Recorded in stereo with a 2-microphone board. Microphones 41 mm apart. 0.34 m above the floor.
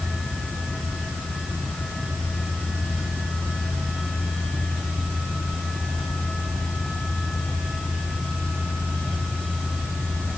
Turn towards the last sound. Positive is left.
No sound to turn to.